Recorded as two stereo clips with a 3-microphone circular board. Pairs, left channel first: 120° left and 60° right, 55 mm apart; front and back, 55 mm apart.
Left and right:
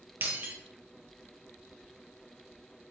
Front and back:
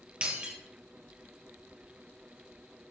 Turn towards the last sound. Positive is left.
turn(degrees=-110)